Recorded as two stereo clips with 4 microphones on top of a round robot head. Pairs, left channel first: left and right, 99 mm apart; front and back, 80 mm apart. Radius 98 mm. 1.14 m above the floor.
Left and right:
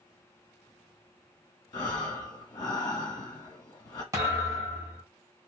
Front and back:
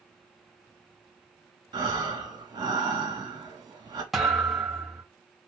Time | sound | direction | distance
1.7 | breathing | 150° left | 1.6 m
4.1 | a thud | 90° right | 0.7 m